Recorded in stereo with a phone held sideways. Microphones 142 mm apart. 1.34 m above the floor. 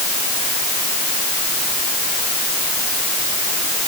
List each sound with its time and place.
Only background noise.